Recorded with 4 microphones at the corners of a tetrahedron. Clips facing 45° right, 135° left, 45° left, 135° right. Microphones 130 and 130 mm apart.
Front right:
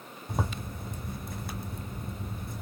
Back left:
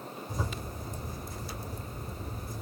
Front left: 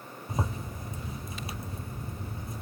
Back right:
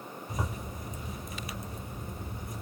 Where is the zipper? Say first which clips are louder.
Front right 4 dB, front left 3 dB; 15° right, 1.1 m.